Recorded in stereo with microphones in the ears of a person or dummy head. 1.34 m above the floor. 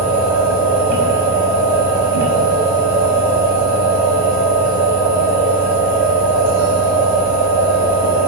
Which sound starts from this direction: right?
A machine running, at 0.0 s.